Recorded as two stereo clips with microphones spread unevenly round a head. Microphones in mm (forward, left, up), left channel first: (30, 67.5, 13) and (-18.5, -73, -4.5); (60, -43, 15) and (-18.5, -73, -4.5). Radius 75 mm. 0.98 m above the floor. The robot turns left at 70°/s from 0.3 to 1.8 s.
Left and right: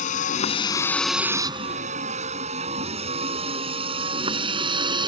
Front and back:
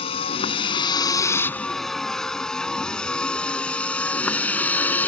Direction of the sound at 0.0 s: 30° left.